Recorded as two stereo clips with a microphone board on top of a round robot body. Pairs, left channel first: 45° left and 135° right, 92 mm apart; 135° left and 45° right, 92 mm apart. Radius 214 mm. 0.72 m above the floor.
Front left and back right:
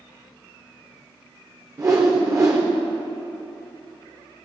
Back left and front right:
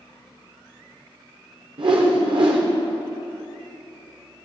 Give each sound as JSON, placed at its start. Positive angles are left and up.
{"t": 1.8, "sound": "a whoosh", "azimuth_deg": -75, "distance_m": 0.7}